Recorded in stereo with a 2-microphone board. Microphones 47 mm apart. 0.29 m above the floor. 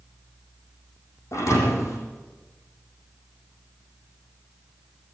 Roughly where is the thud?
Left.